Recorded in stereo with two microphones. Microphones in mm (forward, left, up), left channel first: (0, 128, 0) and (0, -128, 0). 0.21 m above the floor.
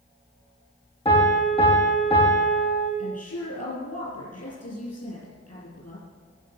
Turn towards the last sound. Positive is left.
turn(degrees=75)  # may be behind; listen again after turning